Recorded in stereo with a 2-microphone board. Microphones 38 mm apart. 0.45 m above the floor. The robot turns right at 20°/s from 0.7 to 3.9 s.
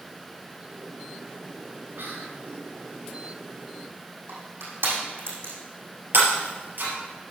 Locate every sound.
2.0 s whispering: 70° right (ahead or behind), 2.0 m; by 2.4 s 65° right (ahead or behind), 2.0 m
4.3 s crushing: 80° right, 5 m
6.1 s breaking glass: 60° right (ahead or behind), 4 m